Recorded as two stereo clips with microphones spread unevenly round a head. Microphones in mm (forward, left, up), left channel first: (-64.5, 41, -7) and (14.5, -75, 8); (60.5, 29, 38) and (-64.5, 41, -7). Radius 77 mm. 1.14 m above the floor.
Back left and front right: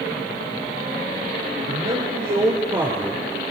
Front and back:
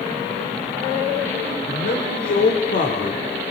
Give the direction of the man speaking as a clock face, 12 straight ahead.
12 o'clock.